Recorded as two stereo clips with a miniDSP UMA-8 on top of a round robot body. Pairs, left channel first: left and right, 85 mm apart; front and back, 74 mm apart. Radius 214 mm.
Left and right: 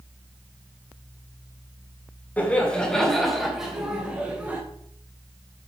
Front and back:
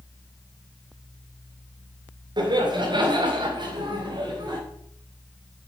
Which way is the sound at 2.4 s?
165° left.